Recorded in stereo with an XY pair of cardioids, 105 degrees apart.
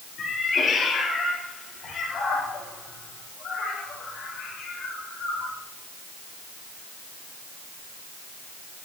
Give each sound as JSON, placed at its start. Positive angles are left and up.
{"t": 0.2, "sound": "a cat meowing", "azimuth_deg": 50, "distance_m": 8.5}